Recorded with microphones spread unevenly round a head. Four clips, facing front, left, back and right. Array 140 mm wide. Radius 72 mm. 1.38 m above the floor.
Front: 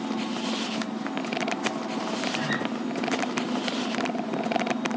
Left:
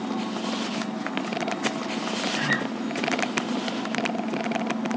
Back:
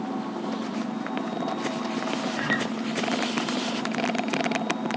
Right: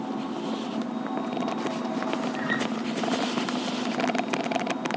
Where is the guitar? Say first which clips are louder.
Left 1 dB, back 1 dB; 100° left, 5 m.